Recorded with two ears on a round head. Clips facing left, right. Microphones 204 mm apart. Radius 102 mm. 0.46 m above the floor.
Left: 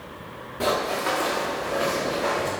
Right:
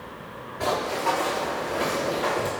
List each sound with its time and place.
0.6 s running footsteps: 35° left (ahead or behind), 1.9 m; by 2.5 s 25° right (ahead or behind), 1.8 m